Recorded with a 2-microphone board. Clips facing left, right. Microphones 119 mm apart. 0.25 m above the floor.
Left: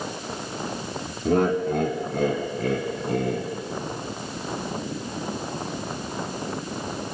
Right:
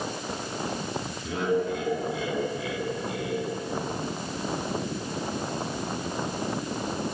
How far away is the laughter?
About 1.9 m.